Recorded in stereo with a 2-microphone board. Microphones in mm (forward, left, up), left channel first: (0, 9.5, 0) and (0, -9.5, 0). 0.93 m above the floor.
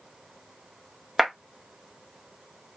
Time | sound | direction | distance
1.2 | a clap | centre (ahead or behind) | 0.9 m